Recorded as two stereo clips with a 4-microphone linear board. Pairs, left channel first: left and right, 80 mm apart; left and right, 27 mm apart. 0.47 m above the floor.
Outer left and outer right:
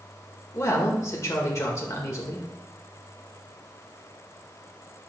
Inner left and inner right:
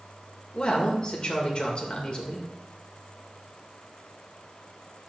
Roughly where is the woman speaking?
Left.